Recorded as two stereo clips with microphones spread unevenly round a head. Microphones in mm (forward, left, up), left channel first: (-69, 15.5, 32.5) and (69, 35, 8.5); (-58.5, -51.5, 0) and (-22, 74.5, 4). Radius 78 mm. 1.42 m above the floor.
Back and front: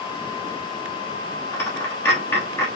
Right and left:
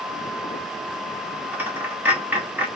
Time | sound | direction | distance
1.5 | a dropped coin | 140° left | 1.0 m